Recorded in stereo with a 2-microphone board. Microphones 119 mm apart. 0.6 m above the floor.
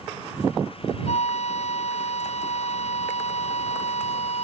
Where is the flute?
65° left (ahead or behind).